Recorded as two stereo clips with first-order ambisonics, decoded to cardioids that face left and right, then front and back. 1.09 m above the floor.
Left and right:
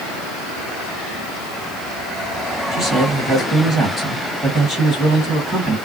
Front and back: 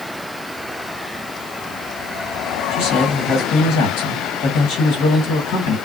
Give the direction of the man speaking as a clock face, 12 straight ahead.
1 o'clock.